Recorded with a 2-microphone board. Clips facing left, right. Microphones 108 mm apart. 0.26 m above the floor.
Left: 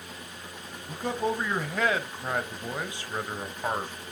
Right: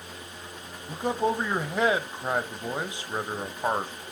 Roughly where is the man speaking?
Centre.